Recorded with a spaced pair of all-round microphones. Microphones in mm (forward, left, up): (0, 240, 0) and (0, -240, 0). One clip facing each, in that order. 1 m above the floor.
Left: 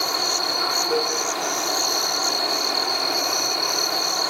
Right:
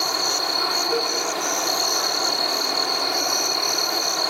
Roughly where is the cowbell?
Centre.